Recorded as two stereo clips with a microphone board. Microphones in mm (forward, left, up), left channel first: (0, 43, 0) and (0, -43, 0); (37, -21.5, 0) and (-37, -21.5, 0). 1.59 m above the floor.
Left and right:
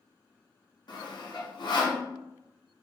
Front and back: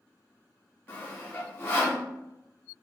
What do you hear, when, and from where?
0.9 s sawing: 60° left, 0.6 m